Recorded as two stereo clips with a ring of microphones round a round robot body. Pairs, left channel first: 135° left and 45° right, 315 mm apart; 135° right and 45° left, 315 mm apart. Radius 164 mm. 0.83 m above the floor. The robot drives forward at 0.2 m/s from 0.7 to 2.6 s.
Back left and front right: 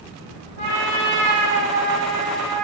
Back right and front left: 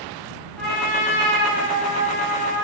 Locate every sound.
0.6 s a trumpet: 45° right, 1.4 m; by 2.6 s 60° right, 1.2 m